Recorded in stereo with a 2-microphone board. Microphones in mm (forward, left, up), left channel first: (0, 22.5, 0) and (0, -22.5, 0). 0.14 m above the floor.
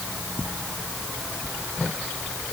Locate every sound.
Only background noise.